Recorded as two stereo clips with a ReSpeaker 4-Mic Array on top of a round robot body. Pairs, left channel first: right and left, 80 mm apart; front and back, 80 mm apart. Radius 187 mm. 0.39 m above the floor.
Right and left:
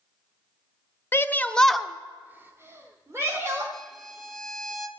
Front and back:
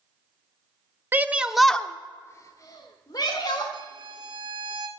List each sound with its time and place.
1.1 s a shout: 130° right, 0.9 m; by 3.6 s 40° left, 1.8 m
3.7 s a violin: 175° right, 1.4 m